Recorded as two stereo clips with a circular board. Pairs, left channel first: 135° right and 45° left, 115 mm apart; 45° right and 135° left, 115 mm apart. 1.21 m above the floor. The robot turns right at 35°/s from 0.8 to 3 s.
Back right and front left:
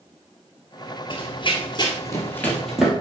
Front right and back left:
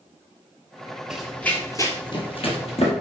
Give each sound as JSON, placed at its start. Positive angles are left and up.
{"t": 1.1, "sound": "running footsteps", "azimuth_deg": -140, "distance_m": 1.7}